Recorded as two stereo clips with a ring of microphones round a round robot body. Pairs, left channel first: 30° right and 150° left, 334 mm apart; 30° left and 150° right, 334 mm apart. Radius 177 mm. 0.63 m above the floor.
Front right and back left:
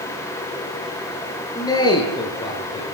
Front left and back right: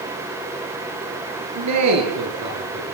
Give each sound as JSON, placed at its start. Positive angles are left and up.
{"t": 1.6, "sound": "a man speaking", "azimuth_deg": -110, "distance_m": 9.5}